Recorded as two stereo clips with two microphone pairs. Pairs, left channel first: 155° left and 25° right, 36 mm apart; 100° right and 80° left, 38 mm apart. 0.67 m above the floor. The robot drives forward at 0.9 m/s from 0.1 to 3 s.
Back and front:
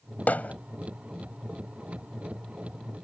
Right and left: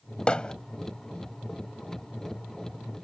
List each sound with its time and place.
0.3 s hammering: 165° right